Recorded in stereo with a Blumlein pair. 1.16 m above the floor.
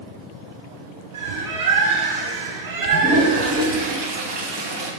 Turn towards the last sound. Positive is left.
turn(degrees=-25)